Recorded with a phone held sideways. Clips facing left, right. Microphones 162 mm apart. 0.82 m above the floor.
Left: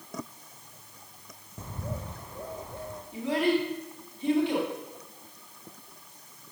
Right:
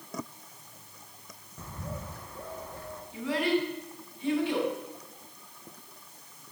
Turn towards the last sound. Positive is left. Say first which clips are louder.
# left 2 dB
turn(degrees=20)  # may be behind; listen again after turning